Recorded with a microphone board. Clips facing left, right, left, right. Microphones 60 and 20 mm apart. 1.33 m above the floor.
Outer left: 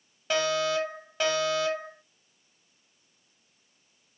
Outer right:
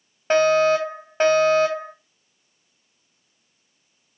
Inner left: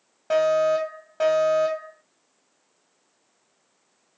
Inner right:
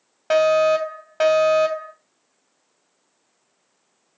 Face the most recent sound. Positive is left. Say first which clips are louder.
# outer right 10 dB, inner right 4 dB
turn(degrees=-40)  # may be behind; listen again after turning